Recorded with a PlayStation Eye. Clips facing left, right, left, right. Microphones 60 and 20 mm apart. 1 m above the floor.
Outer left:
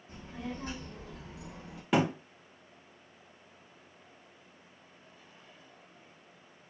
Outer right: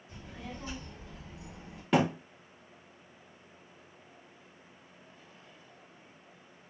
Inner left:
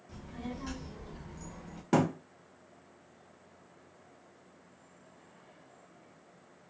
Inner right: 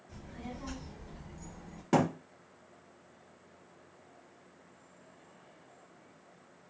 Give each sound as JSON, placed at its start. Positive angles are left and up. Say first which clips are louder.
{"t": 0.1, "sound": "a child speaking", "louder": "outer left 4 dB, inner left 3 dB", "side_deg": 35, "distance_m": 1.5}
{"t": 1.9, "sound": "a thud", "louder": "outer right 1 dB, even", "side_deg": 5, "distance_m": 0.8}